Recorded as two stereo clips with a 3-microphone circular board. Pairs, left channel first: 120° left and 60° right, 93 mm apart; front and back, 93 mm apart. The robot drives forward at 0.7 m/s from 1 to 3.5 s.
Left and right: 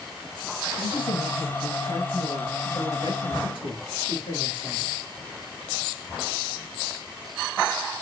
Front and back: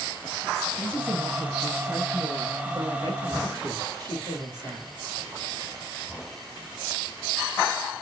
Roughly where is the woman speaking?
Left.